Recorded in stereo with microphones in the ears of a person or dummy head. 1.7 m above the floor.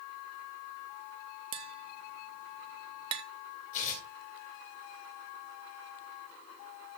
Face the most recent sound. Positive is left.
turn(degrees=40)  # may be behind; listen again after turning